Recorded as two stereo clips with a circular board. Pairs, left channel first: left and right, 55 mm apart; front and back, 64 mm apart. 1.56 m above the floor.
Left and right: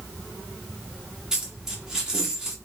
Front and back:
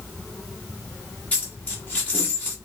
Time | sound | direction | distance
1.3 | a dropped coin | 30° right | 1.6 m